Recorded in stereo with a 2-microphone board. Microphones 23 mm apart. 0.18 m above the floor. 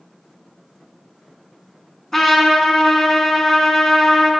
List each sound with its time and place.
2.1 s a trumpet: 15° left (ahead or behind), 1.0 m